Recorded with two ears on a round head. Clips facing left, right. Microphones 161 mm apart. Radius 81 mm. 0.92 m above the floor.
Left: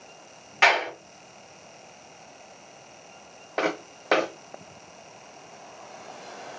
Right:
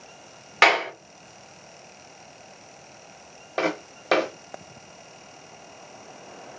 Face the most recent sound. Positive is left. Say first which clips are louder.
# right 1 dB
turn(degrees=-10)  # may be behind; listen again after turning